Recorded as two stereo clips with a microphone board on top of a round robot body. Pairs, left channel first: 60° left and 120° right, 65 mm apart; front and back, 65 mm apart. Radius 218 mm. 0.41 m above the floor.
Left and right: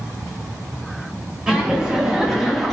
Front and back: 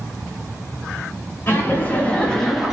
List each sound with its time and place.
1.5 s laughter: 45° right, 1.3 m; by 2.8 s 150° left, 0.9 m